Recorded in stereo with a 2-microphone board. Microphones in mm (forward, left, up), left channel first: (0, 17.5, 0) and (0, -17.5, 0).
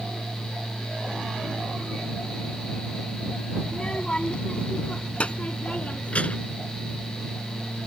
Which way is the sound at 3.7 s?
25° left (ahead or behind).